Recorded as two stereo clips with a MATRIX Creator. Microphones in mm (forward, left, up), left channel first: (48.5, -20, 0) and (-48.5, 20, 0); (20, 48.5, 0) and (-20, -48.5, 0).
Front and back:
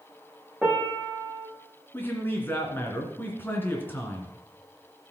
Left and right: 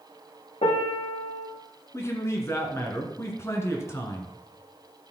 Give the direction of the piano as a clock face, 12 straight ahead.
10 o'clock.